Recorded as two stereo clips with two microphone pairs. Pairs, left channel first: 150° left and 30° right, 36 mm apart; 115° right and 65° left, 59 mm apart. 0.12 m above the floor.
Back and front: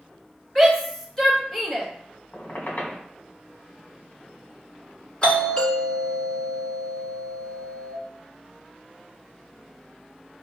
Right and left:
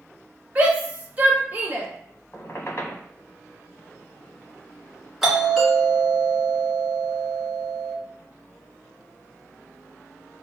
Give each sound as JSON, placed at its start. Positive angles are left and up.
{"t": 0.6, "sound": "a shout", "azimuth_deg": 90, "distance_m": 1.4}
{"t": 2.3, "sound": "a squeak", "azimuth_deg": -170, "distance_m": 1.7}
{"t": 5.2, "sound": "a doorbell", "azimuth_deg": 145, "distance_m": 1.7}